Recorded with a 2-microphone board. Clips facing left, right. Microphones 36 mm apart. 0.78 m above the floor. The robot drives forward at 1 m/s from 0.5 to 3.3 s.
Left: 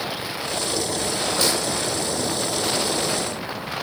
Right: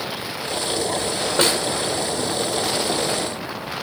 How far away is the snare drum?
About 1.3 m.